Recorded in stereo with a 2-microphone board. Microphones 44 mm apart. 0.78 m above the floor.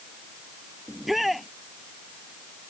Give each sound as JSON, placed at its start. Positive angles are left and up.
{"t": 0.9, "sound": "a shout", "side_deg": -5}